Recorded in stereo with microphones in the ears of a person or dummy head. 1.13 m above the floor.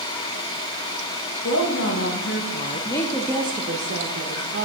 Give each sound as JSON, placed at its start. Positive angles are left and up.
{"t": 1.4, "sound": "a woman speaking", "side_deg": 70, "distance_m": 1.6}